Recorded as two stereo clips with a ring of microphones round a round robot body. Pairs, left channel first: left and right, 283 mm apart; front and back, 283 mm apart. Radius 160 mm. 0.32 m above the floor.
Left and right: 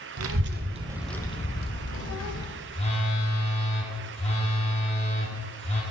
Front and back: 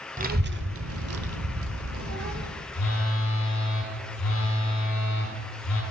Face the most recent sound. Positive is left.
turn(degrees=25)